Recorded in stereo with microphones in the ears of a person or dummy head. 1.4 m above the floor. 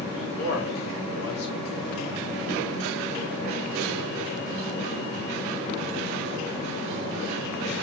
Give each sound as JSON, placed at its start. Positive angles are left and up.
{"t": 0.1, "sound": "a man speaking", "side_deg": 55, "distance_m": 5.0}